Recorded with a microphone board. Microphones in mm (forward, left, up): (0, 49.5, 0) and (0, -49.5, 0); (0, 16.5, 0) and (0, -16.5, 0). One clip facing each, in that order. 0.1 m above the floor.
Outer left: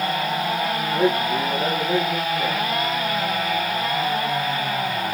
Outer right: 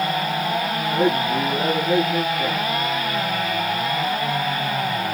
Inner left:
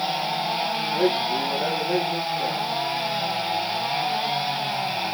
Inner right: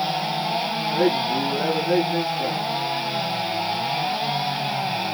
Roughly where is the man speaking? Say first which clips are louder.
Outer right 1 dB, inner right 2 dB; right.